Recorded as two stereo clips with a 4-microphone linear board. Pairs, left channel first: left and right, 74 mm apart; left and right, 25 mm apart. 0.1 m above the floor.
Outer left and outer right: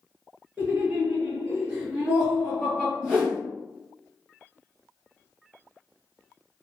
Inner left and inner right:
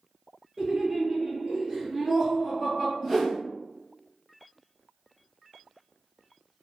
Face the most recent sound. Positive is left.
turn(degrees=-5)  # may be behind; listen again after turning